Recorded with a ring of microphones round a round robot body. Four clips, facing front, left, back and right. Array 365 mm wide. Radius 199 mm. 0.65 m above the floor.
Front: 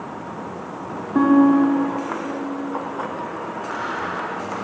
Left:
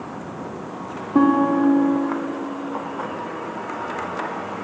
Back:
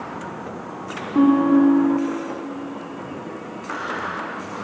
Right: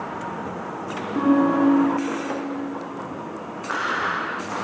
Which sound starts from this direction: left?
A guitar, at 1.1 s.